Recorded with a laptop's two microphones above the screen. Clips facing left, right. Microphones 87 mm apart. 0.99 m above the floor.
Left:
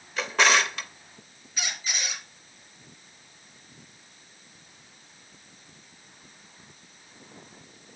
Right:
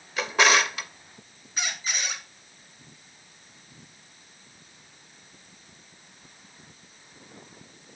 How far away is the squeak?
About 2.5 m.